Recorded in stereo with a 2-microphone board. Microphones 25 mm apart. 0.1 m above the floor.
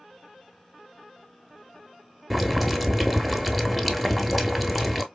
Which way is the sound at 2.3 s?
Centre (ahead or behind).